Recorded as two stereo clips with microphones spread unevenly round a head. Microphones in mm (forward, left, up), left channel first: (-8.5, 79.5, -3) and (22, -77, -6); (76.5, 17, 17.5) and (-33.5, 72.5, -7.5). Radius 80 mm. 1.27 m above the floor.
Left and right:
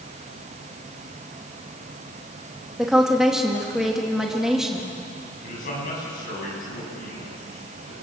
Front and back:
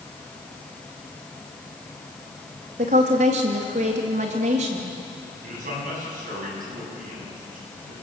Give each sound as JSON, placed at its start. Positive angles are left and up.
{"t": 2.8, "sound": "a woman speaking", "azimuth_deg": -165, "distance_m": 2.5}
{"t": 5.4, "sound": "a man speaking", "azimuth_deg": 140, "distance_m": 9.5}